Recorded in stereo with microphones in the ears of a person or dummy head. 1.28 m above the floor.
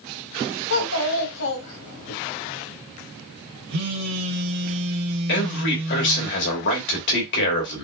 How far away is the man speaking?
About 2.5 m.